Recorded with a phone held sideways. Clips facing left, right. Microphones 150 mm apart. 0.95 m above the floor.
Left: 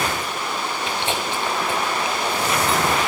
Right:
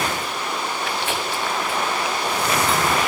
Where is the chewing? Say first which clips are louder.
Left 1 dB; 25° left (ahead or behind), 0.9 m.